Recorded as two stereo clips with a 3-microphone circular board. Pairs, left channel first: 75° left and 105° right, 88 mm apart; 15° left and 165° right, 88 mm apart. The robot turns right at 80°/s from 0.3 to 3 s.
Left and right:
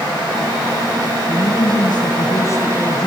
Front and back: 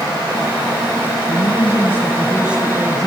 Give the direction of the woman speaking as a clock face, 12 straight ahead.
11 o'clock.